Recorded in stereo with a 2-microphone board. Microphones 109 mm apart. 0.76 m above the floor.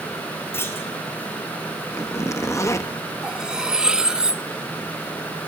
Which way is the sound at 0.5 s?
20° left (ahead or behind).